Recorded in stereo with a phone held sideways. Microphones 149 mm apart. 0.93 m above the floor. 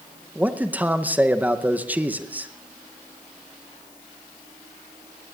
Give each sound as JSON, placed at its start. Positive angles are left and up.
{"t": 0.3, "sound": "a man speaking", "side_deg": -10, "distance_m": 0.7}